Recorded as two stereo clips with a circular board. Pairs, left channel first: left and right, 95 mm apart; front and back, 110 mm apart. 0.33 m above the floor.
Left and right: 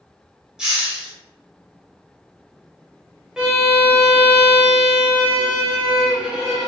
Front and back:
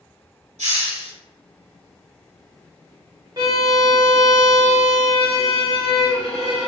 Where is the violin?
170° right, 0.7 m.